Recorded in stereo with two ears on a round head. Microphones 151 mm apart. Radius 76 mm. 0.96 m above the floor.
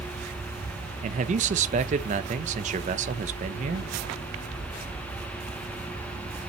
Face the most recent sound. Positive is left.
turn(degrees=-45)  # may be behind; listen again after turning